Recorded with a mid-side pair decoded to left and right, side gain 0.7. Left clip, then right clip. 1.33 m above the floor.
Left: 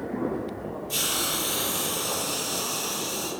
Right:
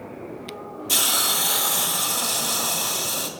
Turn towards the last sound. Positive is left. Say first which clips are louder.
# right 6 dB
turn(degrees=-65)